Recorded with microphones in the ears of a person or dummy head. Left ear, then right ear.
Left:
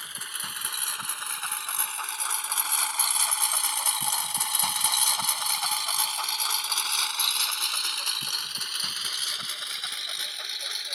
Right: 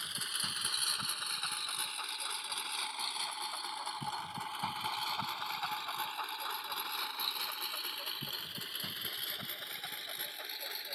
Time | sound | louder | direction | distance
0.0 | a lawn mower | left 2 dB | 30° left (ahead or behind) | ?